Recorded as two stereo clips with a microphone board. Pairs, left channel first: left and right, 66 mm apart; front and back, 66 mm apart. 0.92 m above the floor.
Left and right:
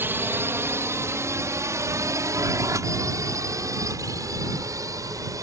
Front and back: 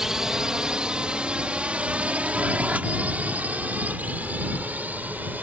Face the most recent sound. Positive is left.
turn(degrees=-115)